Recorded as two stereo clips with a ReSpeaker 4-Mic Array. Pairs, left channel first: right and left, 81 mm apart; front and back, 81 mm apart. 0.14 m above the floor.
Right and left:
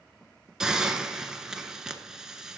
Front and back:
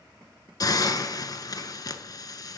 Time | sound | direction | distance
0.6 | a hiss | 10° left | 1.0 m